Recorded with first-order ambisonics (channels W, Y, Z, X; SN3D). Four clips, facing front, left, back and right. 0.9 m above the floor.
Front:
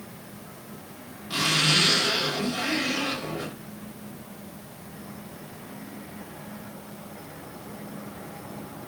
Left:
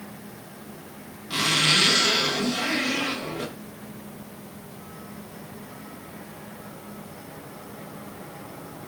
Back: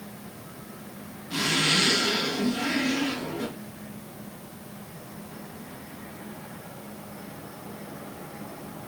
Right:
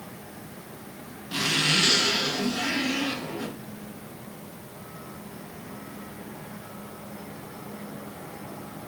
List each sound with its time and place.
1.3 s a zipper: 65° left, 3 m